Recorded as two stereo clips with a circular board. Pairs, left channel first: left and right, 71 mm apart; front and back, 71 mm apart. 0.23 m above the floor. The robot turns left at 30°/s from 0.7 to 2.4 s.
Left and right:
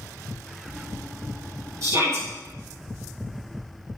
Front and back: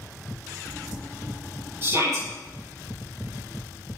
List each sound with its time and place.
1.8 s a shout: 130° right, 6 m; by 2.3 s 140° right, 6 m